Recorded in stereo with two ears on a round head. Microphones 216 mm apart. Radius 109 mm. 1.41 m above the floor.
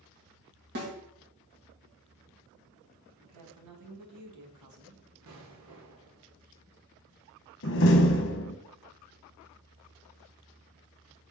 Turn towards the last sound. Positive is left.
turn(degrees=55)  # may be behind; listen again after turning